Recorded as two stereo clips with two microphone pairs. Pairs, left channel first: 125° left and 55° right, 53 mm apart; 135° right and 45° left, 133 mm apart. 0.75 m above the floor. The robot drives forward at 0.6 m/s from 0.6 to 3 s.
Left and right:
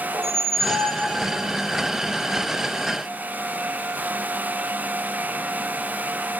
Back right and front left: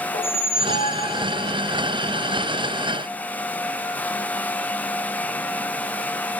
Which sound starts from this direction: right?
A squeak, at 0.1 s.